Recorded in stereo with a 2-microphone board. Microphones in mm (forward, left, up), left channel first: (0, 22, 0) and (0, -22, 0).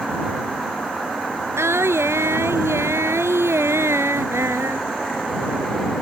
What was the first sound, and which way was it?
Singing, 80° right.